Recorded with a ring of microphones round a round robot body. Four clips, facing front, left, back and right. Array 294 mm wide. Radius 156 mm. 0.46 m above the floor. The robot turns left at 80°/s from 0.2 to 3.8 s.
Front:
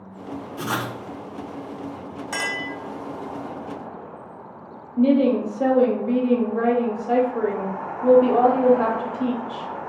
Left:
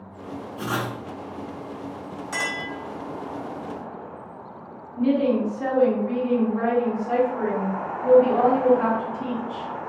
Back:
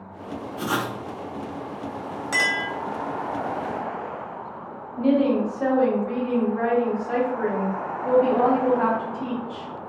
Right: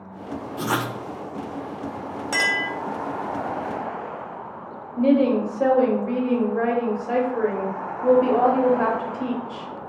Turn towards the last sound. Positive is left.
turn(degrees=-35)